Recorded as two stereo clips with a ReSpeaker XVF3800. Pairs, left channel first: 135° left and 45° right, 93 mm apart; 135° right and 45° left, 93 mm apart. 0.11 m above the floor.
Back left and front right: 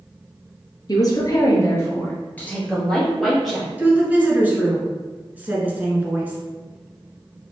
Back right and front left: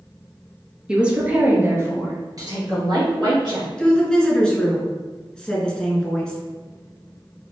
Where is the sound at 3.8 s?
75° right, 1.2 m.